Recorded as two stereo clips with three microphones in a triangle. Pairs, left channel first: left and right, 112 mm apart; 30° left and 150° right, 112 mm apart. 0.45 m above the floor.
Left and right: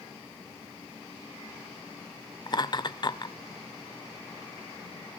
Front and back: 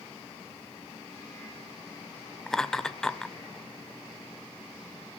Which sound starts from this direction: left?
Laughter, at 2.5 s.